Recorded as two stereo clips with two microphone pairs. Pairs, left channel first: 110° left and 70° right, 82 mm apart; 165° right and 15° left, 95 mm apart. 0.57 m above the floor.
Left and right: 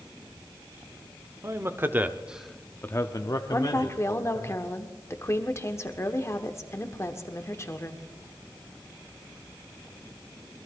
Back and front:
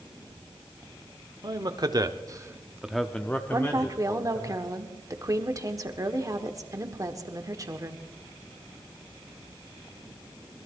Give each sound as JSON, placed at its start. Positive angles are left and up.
{"t": 1.4, "sound": "a man speaking", "azimuth_deg": -20, "distance_m": 1.4}
{"t": 3.5, "sound": "a woman speaking", "azimuth_deg": 60, "distance_m": 1.4}